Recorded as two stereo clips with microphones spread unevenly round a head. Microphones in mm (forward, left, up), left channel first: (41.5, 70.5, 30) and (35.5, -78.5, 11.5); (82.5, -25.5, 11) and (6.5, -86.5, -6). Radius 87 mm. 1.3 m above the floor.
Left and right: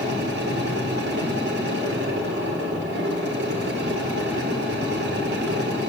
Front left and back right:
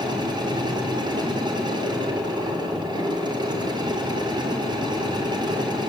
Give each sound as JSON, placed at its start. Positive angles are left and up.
{"t": 0.0, "sound": "a machine running", "azimuth_deg": -100, "distance_m": 4.0}